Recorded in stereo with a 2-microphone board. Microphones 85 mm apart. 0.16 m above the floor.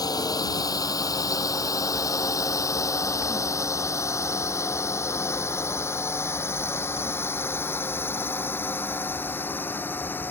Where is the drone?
45° left (ahead or behind); by 10.3 s 25° left (ahead or behind).